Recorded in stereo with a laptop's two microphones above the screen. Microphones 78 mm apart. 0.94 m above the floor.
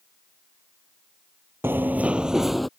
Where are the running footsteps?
30° right (ahead or behind); by 2.7 s centre (ahead or behind).